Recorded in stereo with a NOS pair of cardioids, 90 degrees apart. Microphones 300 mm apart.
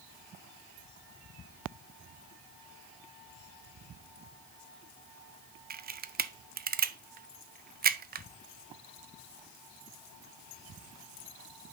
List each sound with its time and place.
5.7 s a camera shutter: 30° right, 0.7 m